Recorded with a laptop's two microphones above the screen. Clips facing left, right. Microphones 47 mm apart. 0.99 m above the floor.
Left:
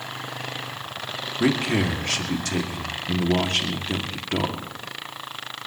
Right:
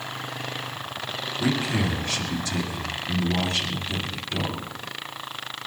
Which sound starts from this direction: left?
A man speaking, at 1.4 s.